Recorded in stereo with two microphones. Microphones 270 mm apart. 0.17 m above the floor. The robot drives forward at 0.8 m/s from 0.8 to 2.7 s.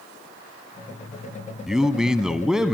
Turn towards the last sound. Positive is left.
turn(degrees=0)  # may be behind; listen again after turning